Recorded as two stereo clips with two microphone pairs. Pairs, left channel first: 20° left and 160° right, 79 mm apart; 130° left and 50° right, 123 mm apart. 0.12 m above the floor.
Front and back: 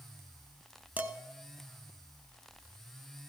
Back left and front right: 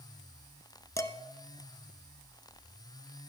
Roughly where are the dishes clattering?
Behind left.